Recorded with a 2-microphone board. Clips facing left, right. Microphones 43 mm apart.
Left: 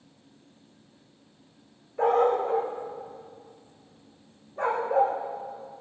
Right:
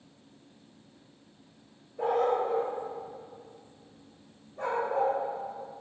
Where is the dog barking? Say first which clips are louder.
Left 4 dB; 70° left (ahead or behind), 4 m; by 5.2 s 45° left (ahead or behind), 5.5 m.